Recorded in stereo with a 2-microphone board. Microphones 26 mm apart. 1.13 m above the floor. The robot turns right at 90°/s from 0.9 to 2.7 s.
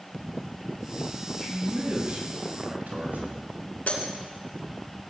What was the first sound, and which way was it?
A man speaking, 160° left.